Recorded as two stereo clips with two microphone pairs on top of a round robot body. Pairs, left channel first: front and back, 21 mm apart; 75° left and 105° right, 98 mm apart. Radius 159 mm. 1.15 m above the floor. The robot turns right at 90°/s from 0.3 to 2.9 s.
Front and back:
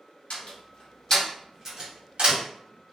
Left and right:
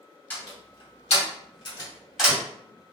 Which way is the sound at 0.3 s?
5° right.